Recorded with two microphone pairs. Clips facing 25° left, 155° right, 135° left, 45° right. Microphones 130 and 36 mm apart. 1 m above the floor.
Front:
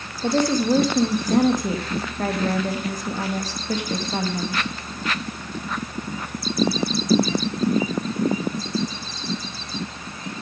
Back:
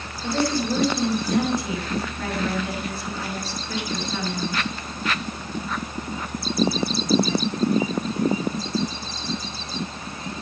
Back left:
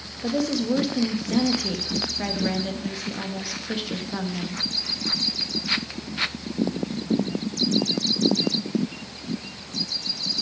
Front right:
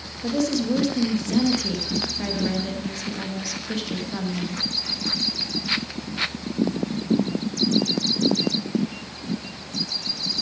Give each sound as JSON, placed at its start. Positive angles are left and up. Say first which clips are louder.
{"t": 0.2, "sound": "a woman speaking", "louder": "front 4 dB, front right 1 dB", "azimuth_deg": 60, "distance_m": 1.6}